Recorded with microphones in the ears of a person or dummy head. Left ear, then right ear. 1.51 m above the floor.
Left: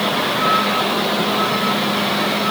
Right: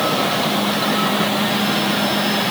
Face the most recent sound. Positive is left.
No sound to turn to.